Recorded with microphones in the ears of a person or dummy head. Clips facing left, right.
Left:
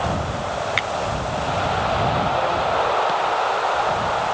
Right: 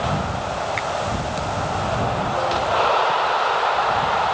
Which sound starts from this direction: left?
A finger snap, at 0.8 s.